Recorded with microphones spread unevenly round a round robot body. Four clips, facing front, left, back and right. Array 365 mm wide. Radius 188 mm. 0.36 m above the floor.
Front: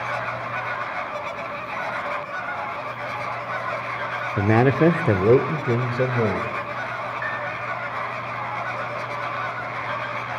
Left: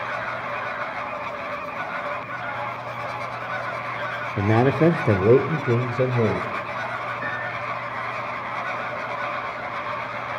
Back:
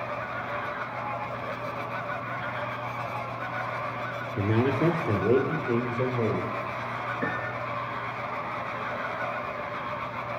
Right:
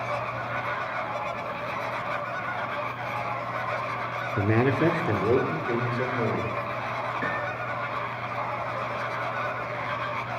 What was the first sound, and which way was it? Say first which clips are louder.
A man speaking: left 5 dB, front 7 dB; straight ahead.